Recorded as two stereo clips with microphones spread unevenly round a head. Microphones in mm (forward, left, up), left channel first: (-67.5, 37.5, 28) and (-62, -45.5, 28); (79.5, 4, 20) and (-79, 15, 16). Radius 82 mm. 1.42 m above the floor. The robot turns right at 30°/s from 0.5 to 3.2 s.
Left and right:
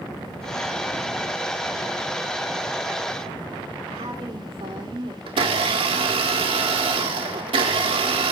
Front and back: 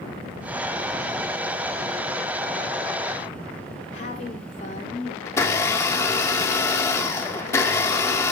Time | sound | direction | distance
3.9 | a woman speaking | 55° right | 4 m
5.3 | a blender | 75° right | 1.6 m